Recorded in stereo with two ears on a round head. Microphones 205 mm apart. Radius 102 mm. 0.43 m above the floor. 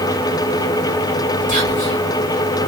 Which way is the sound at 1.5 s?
25° left (ahead or behind).